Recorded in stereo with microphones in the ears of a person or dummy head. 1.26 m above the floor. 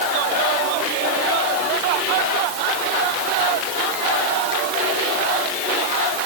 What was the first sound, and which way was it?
Only background noise.